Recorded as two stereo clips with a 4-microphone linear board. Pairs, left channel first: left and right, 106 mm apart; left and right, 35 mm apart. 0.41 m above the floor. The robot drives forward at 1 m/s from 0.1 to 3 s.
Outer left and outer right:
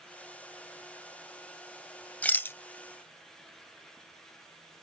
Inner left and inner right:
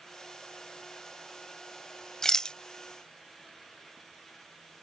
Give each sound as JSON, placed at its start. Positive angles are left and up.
{"t": 2.2, "sound": "a rattle", "side_deg": 15}